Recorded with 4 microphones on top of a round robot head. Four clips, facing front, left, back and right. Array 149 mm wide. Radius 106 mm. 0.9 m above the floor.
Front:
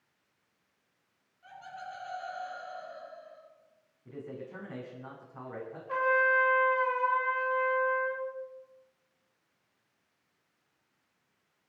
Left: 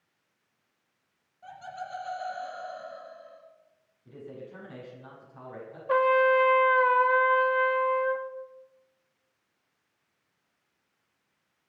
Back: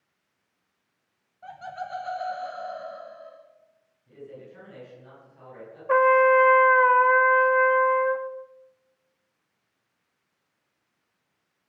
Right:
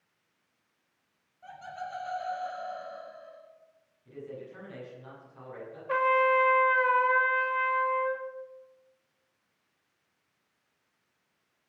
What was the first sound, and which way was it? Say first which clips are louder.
Laughter: even, back 8 dB; 170° left.